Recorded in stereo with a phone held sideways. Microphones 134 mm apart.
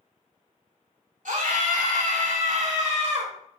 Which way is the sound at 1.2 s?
75° right (ahead or behind).